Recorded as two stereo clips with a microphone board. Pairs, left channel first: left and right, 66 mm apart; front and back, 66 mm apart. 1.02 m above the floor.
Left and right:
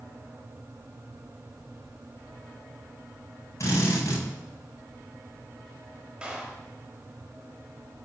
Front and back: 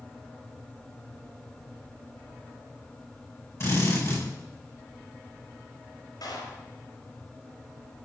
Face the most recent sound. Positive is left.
turn(degrees=-10)